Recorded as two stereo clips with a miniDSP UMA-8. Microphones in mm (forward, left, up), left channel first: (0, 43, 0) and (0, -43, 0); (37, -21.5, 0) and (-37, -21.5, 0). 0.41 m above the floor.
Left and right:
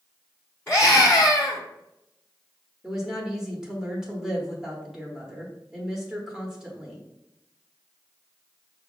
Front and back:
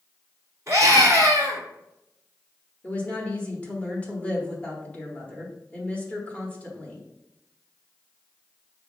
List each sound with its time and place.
0.7 s a scream: 140° left, 1.2 m
2.8 s a woman speaking: 20° right, 1.1 m